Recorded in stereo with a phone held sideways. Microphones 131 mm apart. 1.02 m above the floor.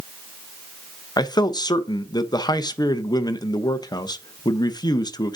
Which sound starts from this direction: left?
A man speaking, at 1.2 s.